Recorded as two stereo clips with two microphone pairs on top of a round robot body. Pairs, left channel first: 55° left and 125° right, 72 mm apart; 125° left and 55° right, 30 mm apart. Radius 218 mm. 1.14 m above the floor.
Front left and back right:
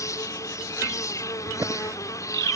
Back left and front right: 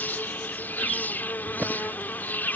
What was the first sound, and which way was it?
An insect, 100° left.